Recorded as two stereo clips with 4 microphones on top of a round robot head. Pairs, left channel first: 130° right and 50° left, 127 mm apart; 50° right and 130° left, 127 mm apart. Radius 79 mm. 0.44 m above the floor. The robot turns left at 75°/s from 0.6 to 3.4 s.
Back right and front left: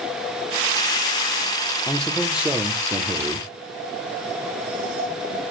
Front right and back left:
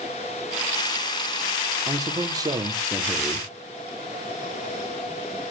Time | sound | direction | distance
1.9 | a man speaking | 160° left | 1.0 m